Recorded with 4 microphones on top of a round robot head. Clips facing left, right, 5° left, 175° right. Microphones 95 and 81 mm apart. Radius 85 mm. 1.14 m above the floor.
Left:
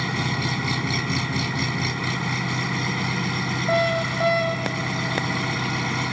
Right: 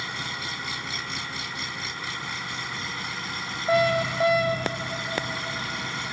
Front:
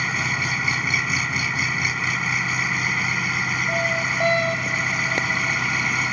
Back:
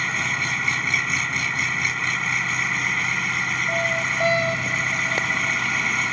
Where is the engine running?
90° left.